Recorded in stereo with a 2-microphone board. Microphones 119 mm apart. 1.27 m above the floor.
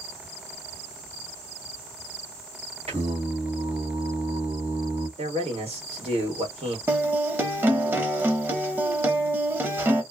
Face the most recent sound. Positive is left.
turn(degrees=-20)  # may be behind; listen again after turning